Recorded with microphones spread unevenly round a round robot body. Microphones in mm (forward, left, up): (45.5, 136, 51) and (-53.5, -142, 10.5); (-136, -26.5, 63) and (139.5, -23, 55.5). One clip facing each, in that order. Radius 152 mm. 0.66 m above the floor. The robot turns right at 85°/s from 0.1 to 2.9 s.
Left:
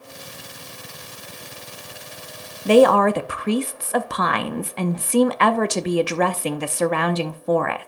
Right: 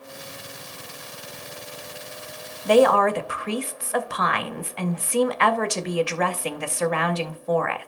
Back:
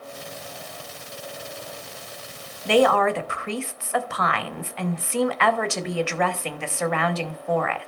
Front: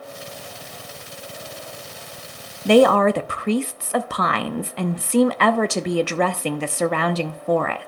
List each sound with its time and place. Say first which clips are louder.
2.6 s a woman speaking: left 3 dB, front 5 dB; 10° left, 0.7 m; by 7.9 s 30° left, 0.7 m